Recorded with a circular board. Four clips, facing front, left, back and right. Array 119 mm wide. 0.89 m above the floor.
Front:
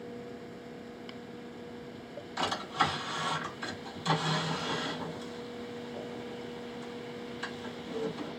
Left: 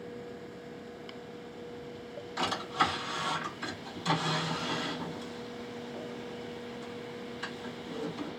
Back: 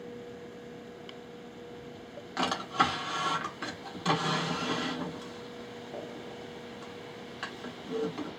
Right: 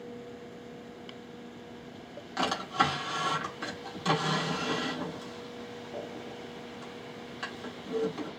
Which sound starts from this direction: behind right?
A drawer, at 2.4 s.